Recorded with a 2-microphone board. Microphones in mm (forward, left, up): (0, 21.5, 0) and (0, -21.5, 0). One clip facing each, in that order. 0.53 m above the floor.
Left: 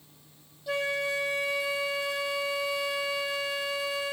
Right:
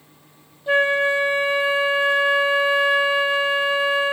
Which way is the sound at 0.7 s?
35° right (ahead or behind).